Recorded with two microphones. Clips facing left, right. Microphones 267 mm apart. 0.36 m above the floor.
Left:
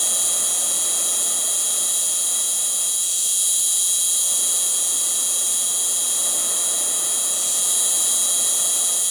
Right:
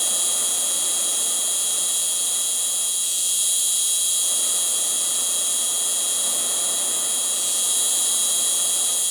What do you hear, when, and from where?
0.0 s an insect: 55° left (ahead or behind), 1.5 m